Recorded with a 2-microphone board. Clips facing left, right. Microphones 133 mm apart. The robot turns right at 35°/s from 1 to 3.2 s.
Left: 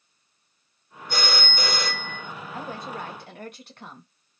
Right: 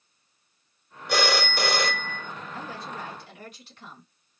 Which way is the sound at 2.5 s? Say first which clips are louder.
Left 4 dB; 45° left (ahead or behind).